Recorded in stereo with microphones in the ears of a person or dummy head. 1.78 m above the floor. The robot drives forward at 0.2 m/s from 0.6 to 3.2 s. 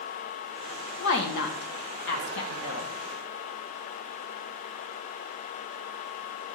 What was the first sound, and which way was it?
A woman speaking, 75° left (ahead or behind).